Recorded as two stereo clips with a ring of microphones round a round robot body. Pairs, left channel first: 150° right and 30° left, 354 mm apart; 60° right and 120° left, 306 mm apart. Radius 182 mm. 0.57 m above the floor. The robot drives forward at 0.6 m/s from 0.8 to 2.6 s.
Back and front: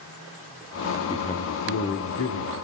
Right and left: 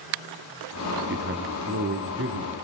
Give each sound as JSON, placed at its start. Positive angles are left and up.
{"t": 1.1, "sound": "a man speaking", "azimuth_deg": 140, "distance_m": 0.7}